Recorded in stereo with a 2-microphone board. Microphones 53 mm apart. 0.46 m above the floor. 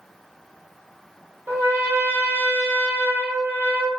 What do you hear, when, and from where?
1.5 s a trumpet: 50° right (ahead or behind), 0.8 m